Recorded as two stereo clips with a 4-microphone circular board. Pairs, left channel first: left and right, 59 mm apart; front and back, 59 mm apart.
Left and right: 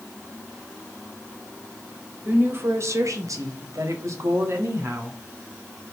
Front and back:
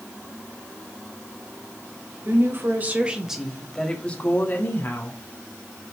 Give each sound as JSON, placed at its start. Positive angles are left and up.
{"t": 2.2, "sound": "a woman speaking", "azimuth_deg": -145, "distance_m": 1.6}